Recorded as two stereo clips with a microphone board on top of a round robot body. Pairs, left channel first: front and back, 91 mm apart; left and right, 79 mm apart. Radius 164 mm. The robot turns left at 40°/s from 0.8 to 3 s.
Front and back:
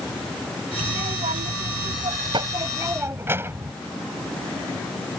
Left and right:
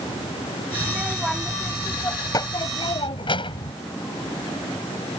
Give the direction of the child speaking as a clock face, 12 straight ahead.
5 o'clock.